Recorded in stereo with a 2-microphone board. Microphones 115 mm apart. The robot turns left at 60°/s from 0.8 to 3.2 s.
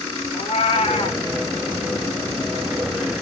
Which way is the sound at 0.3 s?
60° left (ahead or behind).